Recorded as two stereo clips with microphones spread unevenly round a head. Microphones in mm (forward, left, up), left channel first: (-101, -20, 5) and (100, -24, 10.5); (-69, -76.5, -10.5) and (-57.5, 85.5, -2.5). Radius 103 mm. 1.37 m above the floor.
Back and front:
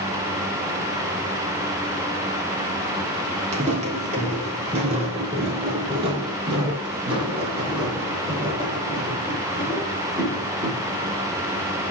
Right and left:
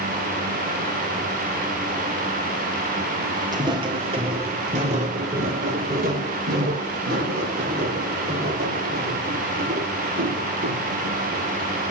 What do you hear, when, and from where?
3.5 s footsteps: 35° left, 1.7 m; by 10.9 s 70° left, 5 m